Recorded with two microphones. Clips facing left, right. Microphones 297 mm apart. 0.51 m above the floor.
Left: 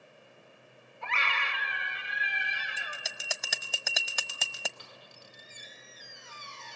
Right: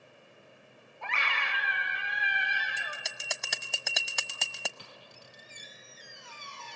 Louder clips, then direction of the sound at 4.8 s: Right 1 dB; 40° right (ahead or behind).